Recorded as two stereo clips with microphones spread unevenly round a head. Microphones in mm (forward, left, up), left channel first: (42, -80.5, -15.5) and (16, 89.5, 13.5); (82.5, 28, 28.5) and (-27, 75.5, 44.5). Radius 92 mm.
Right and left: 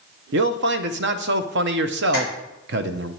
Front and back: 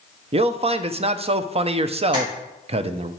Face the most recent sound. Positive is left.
turn(degrees=105)